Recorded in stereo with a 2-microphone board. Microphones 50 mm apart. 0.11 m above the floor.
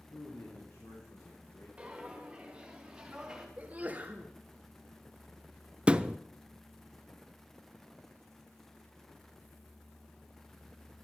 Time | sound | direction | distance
0.1 | a man speaking | 65° left (ahead or behind) | 5 m
1.8 | footsteps | 20° right (ahead or behind) | 5 m
3.6 | a sneeze | 30° right (ahead or behind) | 1.9 m
5.9 | a thud | 25° right (ahead or behind) | 0.5 m